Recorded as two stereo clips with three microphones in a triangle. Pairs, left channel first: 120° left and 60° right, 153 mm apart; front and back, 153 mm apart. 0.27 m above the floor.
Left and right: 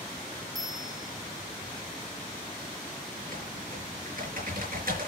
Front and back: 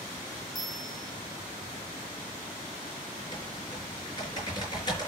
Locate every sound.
0.6 s a bell: 30° right, 2 m
3.2 s typing on a keyboard: 60° right, 4.5 m